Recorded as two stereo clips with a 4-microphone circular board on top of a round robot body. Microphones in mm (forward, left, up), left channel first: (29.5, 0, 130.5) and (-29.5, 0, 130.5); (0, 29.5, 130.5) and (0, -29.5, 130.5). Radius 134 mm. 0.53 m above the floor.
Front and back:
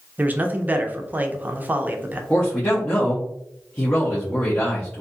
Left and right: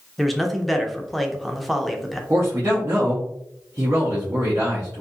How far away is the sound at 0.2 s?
About 0.7 m.